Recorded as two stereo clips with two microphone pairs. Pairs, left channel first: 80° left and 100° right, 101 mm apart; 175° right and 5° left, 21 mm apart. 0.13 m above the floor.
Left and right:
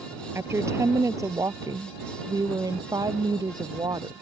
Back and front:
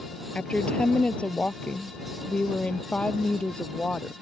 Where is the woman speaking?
160° right; by 4.2 s 145° right.